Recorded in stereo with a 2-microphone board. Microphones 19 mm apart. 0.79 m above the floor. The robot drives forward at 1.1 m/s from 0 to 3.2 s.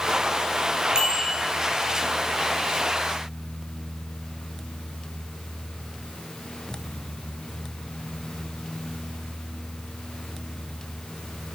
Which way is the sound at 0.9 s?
40° right (ahead or behind).